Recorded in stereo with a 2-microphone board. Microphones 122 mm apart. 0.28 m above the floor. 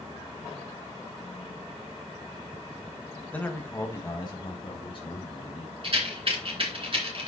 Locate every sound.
3.3 s a man speaking: 10° left (ahead or behind), 1.6 m; by 5.7 s 50° left (ahead or behind), 3 m
5.8 s a rattle: 50° right (ahead or behind), 3 m